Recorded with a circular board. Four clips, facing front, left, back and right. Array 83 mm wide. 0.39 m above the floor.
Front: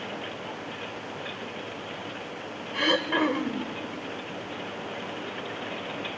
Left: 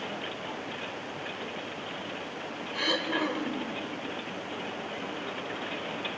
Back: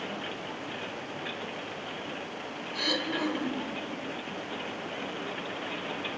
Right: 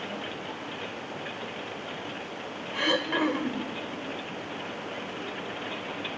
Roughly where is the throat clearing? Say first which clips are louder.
Right 3 dB, front 7 dB; ahead.